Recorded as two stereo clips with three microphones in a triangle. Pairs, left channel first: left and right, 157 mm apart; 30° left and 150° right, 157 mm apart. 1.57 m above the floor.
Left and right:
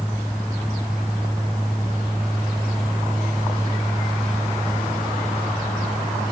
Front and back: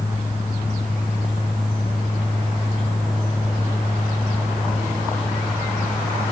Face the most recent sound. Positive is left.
No sound to turn to.